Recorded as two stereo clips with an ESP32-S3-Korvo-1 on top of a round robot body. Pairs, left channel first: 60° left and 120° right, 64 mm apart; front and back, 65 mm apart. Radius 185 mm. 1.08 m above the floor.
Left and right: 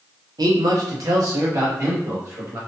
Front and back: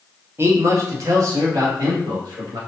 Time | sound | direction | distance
0.4 | a man speaking | 125° right | 0.7 m